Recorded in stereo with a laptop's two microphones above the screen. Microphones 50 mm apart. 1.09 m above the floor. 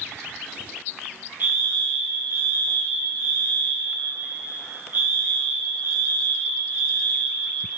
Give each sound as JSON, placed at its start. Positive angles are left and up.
{"t": 1.4, "sound": "a fire alarm", "side_deg": -40, "distance_m": 1.6}